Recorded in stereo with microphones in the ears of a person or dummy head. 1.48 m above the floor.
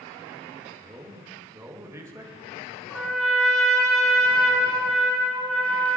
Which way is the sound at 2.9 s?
Centre (ahead or behind).